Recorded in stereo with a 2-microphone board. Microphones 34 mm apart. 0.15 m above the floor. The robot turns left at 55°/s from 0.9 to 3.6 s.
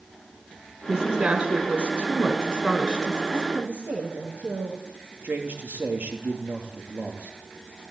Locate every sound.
0.9 s a woman speaking: 20° right, 1.5 m; by 3.2 s 150° right, 1.5 m
3.3 s a woman speaking: 70° right (ahead or behind), 8.5 m; by 4.8 s 80° right, 8.5 m
5.2 s a man speaking: 60° right (ahead or behind), 3.5 m